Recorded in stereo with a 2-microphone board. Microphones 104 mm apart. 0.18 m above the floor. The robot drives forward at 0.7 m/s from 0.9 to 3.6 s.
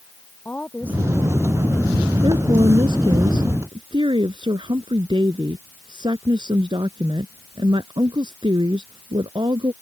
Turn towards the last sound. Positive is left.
turn(degrees=-55)  # may be behind; listen again after turning